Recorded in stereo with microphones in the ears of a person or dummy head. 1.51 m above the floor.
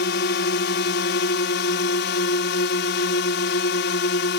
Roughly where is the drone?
Left.